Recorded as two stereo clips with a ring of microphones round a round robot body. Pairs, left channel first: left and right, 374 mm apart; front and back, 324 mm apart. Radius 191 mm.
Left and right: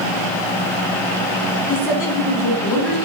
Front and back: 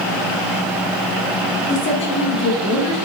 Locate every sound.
1.7 s a woman speaking: 55° left, 3.5 m; by 3.0 s 45° left, 4 m